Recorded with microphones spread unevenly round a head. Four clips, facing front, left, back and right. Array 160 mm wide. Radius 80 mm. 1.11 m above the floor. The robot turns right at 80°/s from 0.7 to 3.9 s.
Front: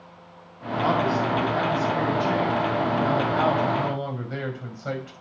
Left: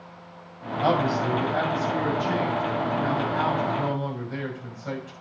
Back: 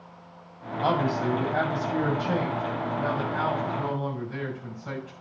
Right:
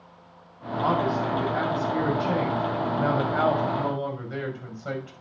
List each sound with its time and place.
0.8 s a man speaking: 115° left, 6 m; by 5.1 s straight ahead, 6 m